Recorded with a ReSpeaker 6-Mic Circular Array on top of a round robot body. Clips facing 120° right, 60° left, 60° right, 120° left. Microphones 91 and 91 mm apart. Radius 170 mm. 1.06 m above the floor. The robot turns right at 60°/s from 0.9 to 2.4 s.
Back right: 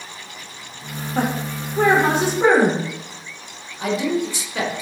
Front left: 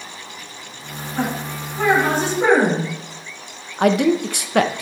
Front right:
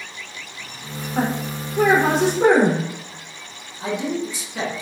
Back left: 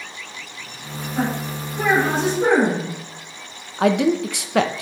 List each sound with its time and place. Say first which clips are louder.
1.1 s a woman speaking: back right 1 dB, front right 1 dB; 110° right, 4.5 m; by 2.9 s 35° right, 4.5 m
3.8 s a man speaking: front left 5 dB, back left 7 dB; 95° left, 0.9 m